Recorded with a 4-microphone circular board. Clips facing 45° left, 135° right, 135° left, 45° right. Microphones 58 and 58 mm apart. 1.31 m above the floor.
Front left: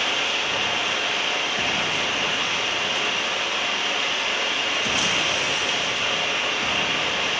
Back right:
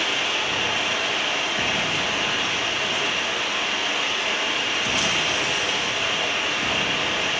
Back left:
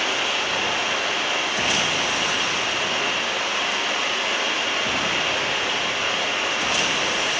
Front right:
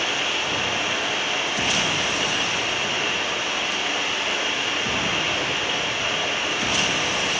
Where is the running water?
140° left, 0.7 m.